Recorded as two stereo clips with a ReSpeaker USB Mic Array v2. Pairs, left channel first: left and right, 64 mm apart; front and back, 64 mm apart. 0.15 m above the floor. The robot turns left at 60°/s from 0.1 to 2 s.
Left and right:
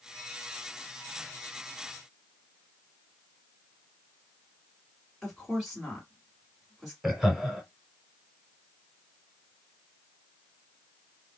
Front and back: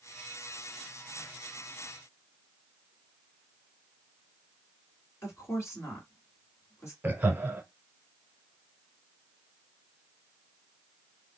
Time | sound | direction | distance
5.2 | a woman speaking | 5° right | 2 m
7.0 | laughter | 165° right | 1.2 m